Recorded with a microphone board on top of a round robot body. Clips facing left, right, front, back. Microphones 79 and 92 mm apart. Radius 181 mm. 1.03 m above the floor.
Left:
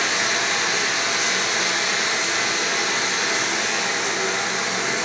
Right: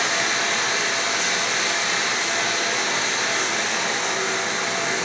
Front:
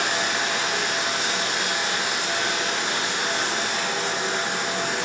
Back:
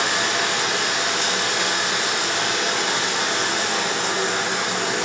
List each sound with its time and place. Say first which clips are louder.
0.0 s running water: even, back 2 dB; 170° left, 0.9 m